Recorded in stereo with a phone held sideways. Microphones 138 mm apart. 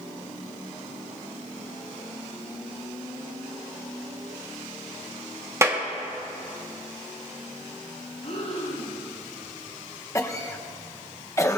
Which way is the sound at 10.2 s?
20° left (ahead or behind).